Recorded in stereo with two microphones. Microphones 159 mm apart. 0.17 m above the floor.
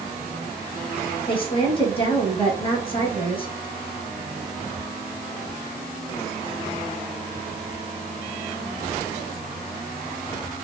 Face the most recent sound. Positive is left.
turn(degrees=35)  # may be behind; listen again after turning